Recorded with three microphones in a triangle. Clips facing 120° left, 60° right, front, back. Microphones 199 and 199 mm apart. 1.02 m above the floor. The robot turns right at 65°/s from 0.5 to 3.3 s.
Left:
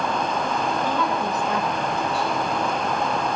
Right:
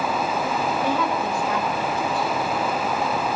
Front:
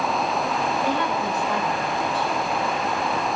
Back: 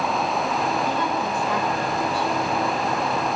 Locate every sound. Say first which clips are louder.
0.8 s a woman speaking: right 1 dB, front 1 dB; 15° left, 4.5 m; by 2.3 s 110° left, 4.5 m